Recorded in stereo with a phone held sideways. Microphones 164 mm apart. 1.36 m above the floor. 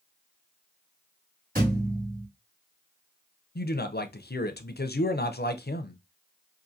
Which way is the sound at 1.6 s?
60° right (ahead or behind).